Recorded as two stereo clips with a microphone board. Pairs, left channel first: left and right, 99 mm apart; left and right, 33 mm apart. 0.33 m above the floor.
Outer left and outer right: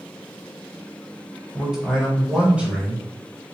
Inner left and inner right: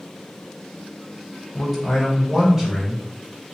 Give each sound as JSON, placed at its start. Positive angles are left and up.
{"t": 1.5, "sound": "a man speaking", "side_deg": -5, "distance_m": 1.5}